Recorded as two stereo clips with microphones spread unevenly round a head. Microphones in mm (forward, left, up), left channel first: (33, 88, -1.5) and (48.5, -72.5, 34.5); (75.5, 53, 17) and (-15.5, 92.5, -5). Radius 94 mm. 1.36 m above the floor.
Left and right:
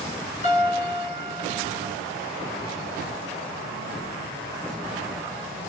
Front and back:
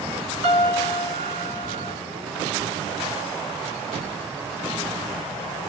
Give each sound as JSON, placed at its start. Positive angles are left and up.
{"t": 0.4, "sound": "a piano", "azimuth_deg": 150, "distance_m": 1.7}